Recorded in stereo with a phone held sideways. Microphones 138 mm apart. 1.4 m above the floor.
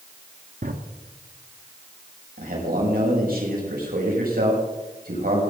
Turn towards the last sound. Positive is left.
turn(degrees=-85)